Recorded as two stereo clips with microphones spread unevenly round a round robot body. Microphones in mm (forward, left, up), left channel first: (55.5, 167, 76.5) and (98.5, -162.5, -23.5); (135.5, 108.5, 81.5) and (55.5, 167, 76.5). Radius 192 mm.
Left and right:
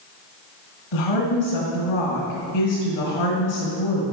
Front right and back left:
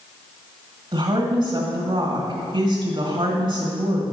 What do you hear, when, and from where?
0.9 s a woman speaking: 110° left, 2 m